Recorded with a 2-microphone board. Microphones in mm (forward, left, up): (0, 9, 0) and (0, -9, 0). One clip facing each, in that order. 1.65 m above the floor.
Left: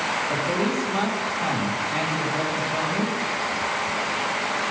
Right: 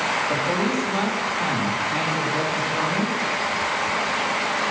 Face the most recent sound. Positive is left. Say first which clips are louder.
# right 1 dB
turn(degrees=-20)  # may be behind; listen again after turning